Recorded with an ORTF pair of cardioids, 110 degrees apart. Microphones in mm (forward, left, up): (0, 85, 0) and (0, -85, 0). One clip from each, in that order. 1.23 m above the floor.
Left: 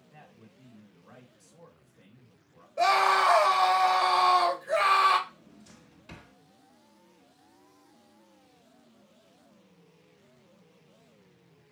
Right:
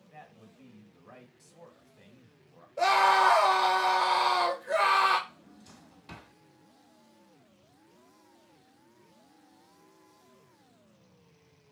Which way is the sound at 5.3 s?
15° right.